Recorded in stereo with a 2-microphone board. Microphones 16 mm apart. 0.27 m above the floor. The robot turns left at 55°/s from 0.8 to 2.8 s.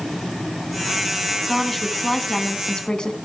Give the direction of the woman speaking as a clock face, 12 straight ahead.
6 o'clock.